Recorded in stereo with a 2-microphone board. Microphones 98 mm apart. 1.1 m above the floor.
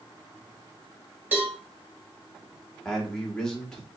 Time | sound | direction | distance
1.3 | a cowbell | 15° right (ahead or behind) | 1.7 m
2.9 | a man speaking | 5° left (ahead or behind) | 1.2 m